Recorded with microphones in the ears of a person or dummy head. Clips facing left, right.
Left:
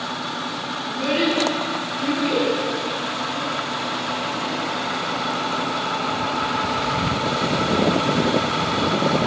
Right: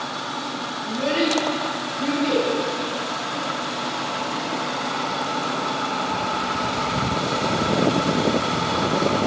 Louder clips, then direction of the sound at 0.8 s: Left 1 dB; 80° right.